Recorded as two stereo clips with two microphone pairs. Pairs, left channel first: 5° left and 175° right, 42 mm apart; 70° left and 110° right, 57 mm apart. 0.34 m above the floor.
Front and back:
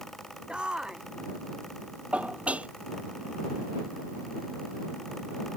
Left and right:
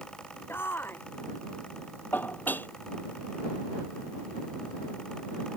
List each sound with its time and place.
0.5 s a shout: 115° left
2.1 s dishes clattering: 125° left